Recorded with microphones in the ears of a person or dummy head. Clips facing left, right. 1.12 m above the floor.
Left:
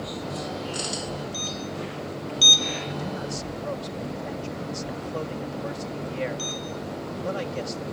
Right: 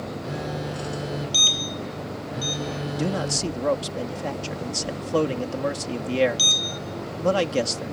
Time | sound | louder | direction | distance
0.2 | a phone buzzing | right 3 dB | 25° right (ahead or behind) | ?
2.9 | a man speaking | right 5 dB | 80° right | ?